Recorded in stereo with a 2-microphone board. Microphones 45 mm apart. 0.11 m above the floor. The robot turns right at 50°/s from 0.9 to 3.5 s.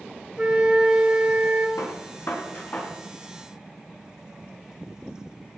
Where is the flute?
160° right, 3 m; by 1.7 s 125° right, 3 m.